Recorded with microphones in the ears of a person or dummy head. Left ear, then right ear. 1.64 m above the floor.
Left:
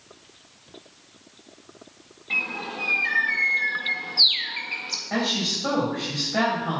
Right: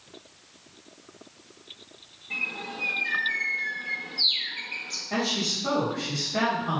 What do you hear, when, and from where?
2.3 s a bird: 60° left (ahead or behind), 1.3 m
5.1 s a woman speaking: 35° left (ahead or behind), 3.5 m